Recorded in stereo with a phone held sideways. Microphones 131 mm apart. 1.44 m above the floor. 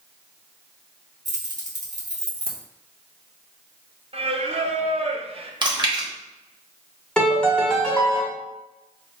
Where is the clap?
I don't hear a clap.